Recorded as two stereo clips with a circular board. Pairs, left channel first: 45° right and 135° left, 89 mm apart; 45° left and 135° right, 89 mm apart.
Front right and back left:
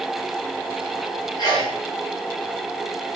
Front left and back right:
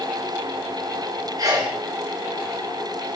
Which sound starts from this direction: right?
A sneeze, at 1.4 s.